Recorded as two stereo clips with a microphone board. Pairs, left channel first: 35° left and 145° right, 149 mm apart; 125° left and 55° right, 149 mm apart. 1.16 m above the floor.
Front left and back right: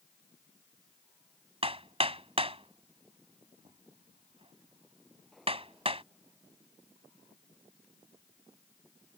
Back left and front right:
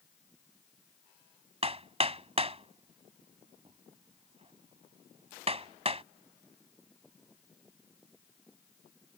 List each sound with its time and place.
1.6 s hammering: 100° right